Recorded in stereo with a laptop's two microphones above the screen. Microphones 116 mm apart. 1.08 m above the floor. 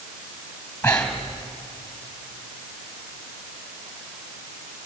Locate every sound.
0.8 s breathing: 10° left (ahead or behind), 3 m